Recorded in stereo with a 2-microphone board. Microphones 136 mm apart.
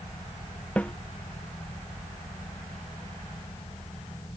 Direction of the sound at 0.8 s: 10° left (ahead or behind).